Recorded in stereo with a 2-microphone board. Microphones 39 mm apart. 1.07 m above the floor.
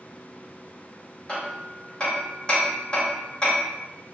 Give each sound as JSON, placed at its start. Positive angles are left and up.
{"t": 1.3, "sound": "hammering", "side_deg": 30, "distance_m": 1.1}